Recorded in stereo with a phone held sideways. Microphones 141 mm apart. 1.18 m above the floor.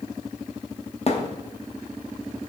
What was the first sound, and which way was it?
A thud, 45° left (ahead or behind).